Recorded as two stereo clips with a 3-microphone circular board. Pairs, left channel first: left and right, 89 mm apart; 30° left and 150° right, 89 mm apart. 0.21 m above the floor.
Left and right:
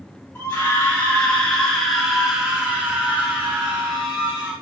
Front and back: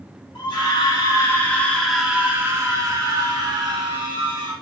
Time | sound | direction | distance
0.3 | a scream | 20° left | 1.6 m